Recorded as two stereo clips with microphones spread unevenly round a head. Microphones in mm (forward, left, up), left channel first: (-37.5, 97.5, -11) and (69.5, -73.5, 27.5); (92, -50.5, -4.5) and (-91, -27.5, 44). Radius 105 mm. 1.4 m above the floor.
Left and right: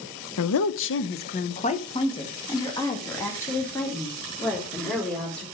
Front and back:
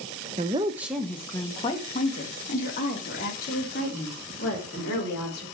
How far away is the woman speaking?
About 0.7 m.